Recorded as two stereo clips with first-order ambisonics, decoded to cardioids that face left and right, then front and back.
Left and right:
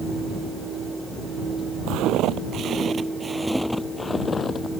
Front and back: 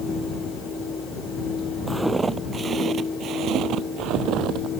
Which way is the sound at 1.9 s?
100° right.